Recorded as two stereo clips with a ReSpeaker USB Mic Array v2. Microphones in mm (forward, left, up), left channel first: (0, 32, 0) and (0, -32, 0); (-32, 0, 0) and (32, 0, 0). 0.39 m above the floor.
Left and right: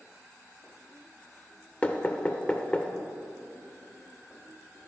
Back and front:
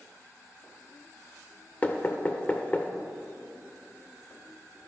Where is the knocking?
140° left, 0.5 m.